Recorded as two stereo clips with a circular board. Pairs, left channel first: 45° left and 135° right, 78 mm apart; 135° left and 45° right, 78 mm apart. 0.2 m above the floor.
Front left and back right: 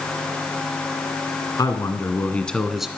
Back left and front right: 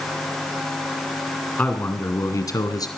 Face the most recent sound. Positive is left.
turn(degrees=140)